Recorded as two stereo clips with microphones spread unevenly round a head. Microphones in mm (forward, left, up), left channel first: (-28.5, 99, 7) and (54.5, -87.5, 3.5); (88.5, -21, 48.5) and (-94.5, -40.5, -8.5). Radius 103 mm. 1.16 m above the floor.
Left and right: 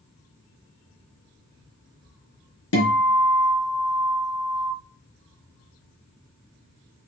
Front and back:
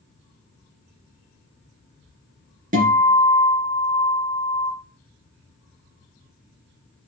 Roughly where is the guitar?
Behind left.